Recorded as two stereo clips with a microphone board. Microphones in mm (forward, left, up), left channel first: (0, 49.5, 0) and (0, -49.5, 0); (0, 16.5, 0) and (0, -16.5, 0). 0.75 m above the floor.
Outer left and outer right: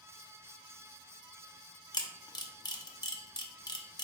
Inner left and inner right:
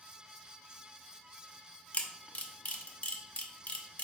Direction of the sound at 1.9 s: 45° left (ahead or behind).